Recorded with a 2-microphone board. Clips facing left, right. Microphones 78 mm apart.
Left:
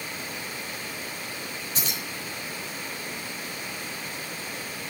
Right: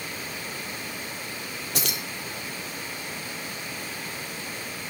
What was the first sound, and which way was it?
Keys jangling, 70° right (ahead or behind).